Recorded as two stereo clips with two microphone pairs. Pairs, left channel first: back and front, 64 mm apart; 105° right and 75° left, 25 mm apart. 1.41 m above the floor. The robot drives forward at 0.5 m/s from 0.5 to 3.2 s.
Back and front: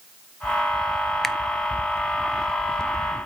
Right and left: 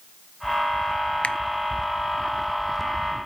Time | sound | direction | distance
1.2 | a finger snap | 95° right | 0.6 m